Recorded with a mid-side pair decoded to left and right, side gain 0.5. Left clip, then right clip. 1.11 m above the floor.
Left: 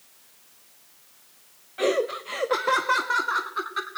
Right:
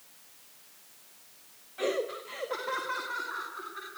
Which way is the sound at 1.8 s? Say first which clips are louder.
Left 7 dB; 35° left.